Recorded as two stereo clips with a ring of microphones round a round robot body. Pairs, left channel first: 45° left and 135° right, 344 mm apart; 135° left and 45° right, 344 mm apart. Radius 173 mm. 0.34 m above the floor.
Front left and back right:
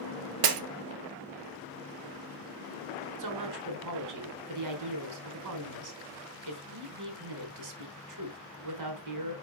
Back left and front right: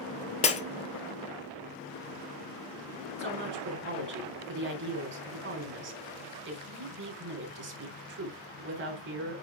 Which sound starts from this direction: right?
A woman speaking, at 3.2 s.